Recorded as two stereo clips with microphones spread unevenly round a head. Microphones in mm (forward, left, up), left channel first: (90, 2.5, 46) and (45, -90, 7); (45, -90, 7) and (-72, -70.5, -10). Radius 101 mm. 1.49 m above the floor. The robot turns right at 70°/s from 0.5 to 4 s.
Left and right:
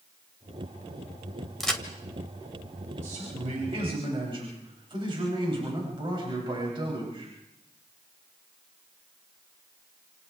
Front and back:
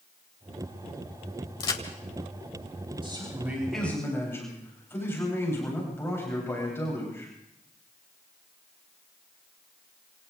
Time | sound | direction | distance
1.6 | a crack | straight ahead | 1.7 m
3.0 | a man speaking | 145° right | 9.5 m